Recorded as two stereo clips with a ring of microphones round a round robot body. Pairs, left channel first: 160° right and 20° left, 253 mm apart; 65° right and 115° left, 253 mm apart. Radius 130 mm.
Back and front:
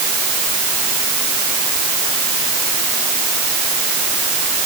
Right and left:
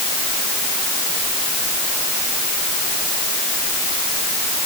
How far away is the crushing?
No crushing in this recording.